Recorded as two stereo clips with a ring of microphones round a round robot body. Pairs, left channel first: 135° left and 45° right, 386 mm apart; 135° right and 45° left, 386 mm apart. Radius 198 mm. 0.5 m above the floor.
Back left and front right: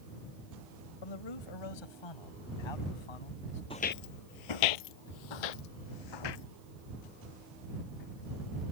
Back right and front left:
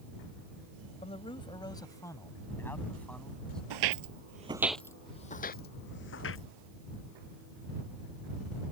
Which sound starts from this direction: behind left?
A man speaking, at 1.0 s.